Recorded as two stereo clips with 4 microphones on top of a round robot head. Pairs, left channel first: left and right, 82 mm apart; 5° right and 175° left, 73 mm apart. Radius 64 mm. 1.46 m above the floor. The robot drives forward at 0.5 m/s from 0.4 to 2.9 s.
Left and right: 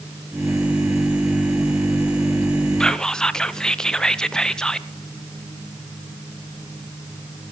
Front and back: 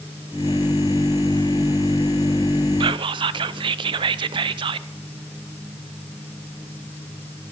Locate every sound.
2.8 s whispering: 170° left, 0.5 m